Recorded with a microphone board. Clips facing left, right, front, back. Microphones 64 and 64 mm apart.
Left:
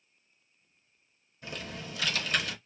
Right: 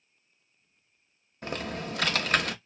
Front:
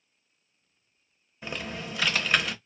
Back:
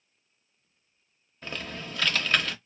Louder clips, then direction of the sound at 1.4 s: Right 7 dB, front 2 dB; 80° right.